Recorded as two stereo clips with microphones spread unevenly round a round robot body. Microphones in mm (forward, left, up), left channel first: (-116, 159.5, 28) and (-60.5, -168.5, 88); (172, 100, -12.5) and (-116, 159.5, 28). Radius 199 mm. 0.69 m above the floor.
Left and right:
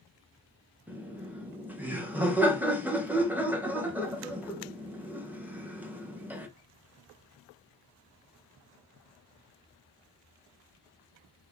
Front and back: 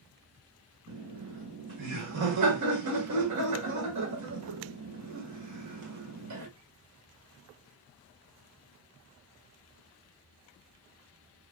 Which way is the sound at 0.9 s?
170° right.